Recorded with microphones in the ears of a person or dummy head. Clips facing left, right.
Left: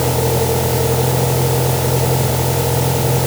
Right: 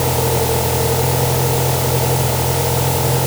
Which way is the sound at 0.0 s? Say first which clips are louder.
Left 1 dB; 10° left (ahead or behind).